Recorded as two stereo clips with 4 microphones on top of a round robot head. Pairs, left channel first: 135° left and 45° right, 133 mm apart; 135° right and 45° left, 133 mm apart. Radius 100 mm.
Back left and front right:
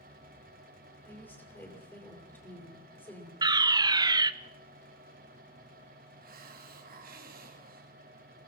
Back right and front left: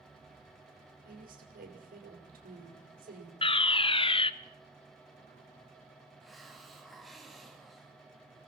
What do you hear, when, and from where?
1.1 s a woman speaking: 60° left, 6 m
3.4 s a fire alarm: 100° right, 1.0 m
6.2 s a hiss: 45° right, 3.5 m